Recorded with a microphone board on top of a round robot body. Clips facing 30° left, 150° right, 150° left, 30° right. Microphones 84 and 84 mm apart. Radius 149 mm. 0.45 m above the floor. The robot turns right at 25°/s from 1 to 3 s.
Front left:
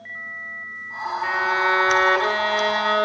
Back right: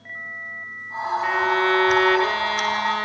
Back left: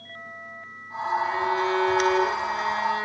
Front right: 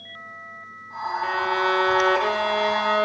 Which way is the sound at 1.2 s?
55° right.